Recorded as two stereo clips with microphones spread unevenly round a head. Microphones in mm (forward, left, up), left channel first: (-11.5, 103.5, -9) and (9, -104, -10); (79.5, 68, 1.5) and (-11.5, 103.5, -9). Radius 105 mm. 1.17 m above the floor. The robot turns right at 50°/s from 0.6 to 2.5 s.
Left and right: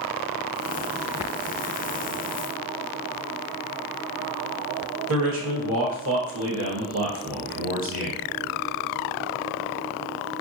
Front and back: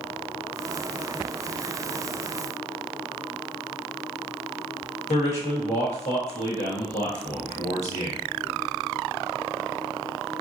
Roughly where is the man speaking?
Ahead right.